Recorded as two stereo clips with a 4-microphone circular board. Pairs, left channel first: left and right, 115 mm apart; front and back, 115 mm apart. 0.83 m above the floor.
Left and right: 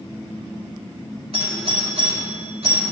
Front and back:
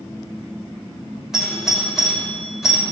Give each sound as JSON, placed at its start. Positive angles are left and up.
{"t": 1.3, "sound": "a doorbell", "azimuth_deg": -95, "distance_m": 5.0}